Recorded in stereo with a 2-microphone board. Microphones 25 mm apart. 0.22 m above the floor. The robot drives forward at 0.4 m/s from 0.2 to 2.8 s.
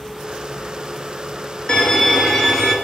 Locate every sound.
1.7 s a violin: 30° left (ahead or behind), 1.1 m; by 2.8 s 25° left (ahead or behind), 1.4 m